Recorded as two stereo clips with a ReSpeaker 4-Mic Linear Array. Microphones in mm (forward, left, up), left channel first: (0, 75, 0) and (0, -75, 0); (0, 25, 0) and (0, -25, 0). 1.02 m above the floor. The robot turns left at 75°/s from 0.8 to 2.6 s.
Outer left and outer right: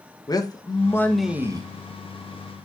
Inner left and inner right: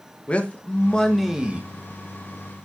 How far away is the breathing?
No breathing in this recording.